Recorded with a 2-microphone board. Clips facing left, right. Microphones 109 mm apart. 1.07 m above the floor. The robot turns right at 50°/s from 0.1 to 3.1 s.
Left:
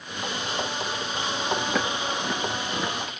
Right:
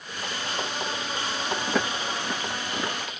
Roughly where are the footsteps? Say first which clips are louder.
Even; centre.